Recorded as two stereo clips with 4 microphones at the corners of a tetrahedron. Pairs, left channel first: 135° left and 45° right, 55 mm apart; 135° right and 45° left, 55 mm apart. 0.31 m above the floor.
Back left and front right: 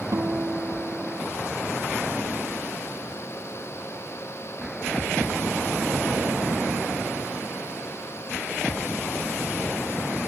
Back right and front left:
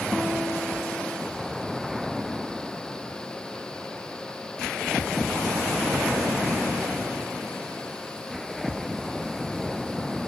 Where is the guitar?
65° right, 1.5 m.